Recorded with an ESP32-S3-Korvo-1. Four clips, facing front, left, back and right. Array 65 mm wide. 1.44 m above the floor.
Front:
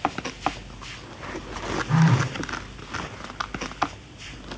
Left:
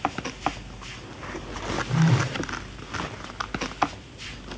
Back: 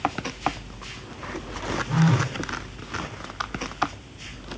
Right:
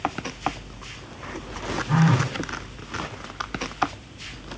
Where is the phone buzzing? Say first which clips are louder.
Right 3 dB, front 1 dB; 55° right, 3.5 m.